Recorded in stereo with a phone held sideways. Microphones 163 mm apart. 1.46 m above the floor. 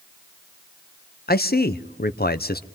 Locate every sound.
1.3 s a man speaking: 70° left (ahead or behind), 0.9 m